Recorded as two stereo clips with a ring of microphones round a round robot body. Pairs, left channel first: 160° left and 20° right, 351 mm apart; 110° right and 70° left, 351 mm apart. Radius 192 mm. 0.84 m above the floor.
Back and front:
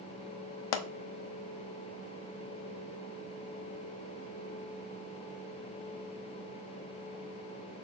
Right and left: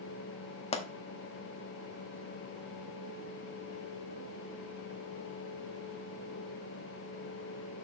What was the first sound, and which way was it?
A pop, 175° left.